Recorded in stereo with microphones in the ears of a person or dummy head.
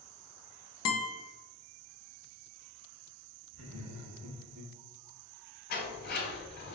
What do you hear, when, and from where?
0.8 s a guitar: 75° left (ahead or behind), 0.8 m
3.5 s laughter: 85° right, 1.4 m
5.7 s a sliding door: 65° left (ahead or behind), 2.0 m